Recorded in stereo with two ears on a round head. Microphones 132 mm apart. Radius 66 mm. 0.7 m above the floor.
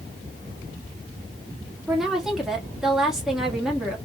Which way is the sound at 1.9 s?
5° right (ahead or behind).